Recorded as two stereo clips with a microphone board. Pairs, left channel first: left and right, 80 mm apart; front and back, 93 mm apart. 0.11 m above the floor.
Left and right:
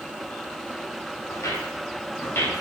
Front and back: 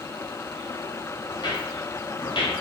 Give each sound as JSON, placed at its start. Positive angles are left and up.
{"t": 1.3, "sound": "footsteps", "azimuth_deg": 40, "distance_m": 3.0}